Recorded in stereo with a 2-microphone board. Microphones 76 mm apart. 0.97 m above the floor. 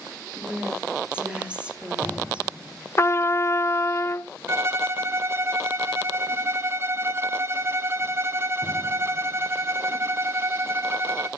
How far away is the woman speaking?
About 2.5 m.